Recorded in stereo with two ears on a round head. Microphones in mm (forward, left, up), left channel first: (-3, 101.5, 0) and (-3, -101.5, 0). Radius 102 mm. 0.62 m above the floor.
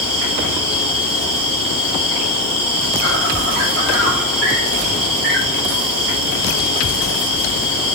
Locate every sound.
0.0 s an insect: 50° right (ahead or behind), 4 m